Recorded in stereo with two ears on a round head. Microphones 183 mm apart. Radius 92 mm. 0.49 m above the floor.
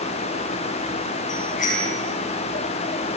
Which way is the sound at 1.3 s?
35° left (ahead or behind).